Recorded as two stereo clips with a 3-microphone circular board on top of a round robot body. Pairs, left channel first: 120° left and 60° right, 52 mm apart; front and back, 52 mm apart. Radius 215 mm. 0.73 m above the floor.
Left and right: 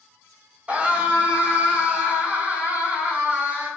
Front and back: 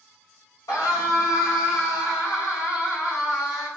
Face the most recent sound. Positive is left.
turn(degrees=5)